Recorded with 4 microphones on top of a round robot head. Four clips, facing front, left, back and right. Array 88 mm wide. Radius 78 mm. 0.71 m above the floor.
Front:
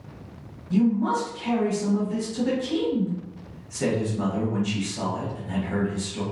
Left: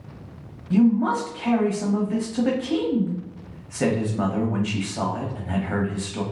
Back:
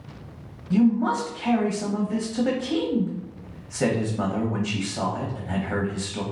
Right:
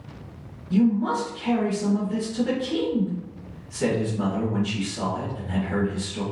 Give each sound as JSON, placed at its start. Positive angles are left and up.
{"t": 0.7, "sound": "a man speaking", "azimuth_deg": 120, "distance_m": 1.0}